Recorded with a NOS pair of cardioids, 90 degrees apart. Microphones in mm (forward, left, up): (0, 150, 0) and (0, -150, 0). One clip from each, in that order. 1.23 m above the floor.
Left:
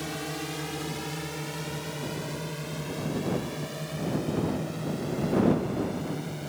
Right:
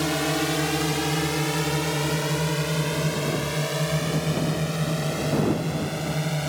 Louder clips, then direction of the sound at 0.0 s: Right 10 dB; 70° right.